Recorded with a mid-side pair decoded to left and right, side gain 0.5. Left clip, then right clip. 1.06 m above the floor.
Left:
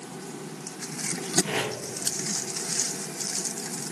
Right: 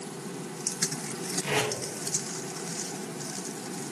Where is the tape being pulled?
55° right, 1.0 m.